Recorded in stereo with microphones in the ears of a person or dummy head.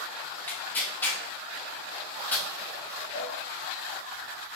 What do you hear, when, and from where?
0.5 s tearing paper: 15° left (ahead or behind), 1.0 m
3.1 s a cowbell: 75° left (ahead or behind), 1.4 m